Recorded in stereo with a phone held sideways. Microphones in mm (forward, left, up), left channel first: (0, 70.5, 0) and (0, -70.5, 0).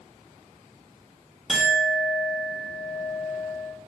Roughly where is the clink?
Centre.